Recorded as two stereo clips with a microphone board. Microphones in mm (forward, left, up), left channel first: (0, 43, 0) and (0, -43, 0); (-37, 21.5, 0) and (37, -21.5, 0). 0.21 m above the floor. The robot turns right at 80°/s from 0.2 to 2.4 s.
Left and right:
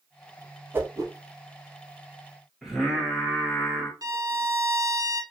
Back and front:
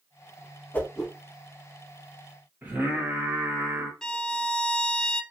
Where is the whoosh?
145° right, 0.6 m; by 1.1 s 115° right, 0.6 m.